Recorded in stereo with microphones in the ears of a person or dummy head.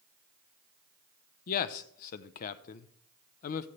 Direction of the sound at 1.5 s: 50° left (ahead or behind).